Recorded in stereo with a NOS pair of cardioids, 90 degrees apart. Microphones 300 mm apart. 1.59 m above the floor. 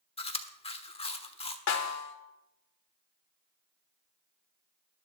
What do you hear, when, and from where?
0.2 s chewing: 20° left, 1.4 m
1.7 s a snare drum: 55° left, 1.6 m